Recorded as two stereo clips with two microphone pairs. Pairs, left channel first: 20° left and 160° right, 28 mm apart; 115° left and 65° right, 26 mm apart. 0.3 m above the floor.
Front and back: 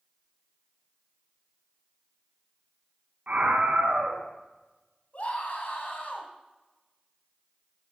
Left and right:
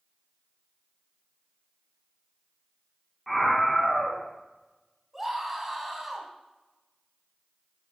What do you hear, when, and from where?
3.3 s a scream: 160° right, 2.5 m
5.1 s a scream: 10° left, 2.5 m